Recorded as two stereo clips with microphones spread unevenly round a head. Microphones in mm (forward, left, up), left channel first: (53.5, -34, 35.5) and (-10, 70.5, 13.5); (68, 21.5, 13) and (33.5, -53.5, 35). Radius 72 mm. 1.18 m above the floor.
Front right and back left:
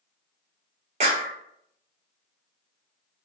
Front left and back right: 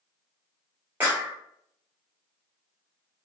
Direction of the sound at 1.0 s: 170° left.